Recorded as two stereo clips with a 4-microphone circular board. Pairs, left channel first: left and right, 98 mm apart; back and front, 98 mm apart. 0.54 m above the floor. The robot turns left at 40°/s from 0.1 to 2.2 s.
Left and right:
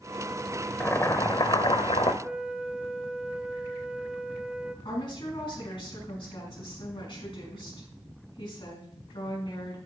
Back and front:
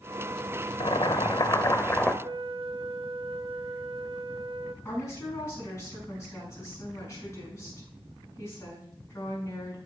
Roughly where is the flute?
Ahead.